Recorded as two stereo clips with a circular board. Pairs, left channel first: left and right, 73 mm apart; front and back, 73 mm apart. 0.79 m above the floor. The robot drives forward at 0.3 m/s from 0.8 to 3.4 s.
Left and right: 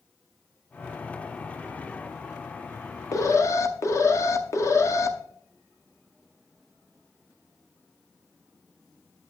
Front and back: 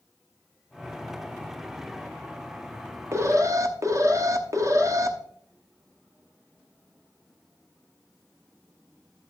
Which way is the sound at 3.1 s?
130° left.